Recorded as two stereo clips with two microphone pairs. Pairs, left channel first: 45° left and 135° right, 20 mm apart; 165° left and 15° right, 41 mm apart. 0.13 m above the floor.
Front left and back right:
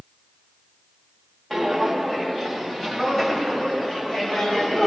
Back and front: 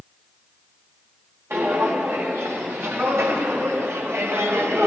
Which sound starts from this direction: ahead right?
Footsteps, at 1.5 s.